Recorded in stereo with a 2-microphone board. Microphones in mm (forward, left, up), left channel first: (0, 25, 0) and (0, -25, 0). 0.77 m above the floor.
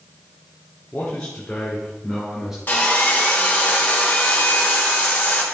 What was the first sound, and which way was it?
A man speaking, 25° left (ahead or behind).